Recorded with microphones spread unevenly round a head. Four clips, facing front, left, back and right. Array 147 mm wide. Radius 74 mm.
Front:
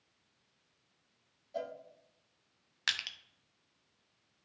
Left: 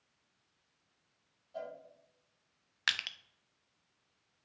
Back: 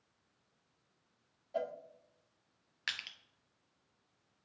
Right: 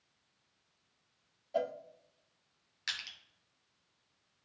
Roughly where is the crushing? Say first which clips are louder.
Left 8 dB, front 4 dB; left.